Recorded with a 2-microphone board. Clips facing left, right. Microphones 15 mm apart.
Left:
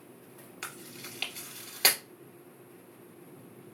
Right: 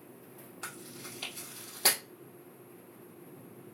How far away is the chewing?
About 2 m.